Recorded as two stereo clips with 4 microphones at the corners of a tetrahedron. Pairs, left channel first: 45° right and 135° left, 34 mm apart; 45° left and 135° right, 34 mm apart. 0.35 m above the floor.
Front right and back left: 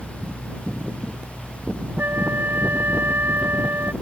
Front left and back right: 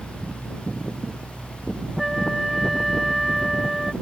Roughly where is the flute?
Behind left.